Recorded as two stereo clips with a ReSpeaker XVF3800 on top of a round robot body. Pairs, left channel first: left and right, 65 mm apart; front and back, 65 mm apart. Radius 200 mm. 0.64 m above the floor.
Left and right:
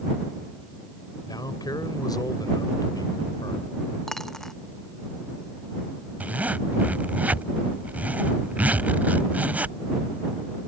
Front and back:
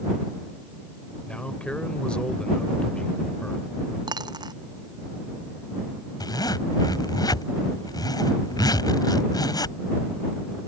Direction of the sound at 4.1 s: 175° left.